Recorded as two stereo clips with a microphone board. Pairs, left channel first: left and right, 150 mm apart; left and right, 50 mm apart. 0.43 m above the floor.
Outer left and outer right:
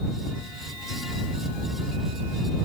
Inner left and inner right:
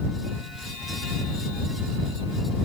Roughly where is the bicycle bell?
No bicycle bell in this recording.